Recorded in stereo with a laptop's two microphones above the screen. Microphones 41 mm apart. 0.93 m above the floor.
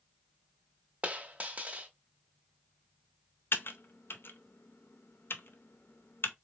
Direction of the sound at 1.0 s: 35° right (ahead or behind).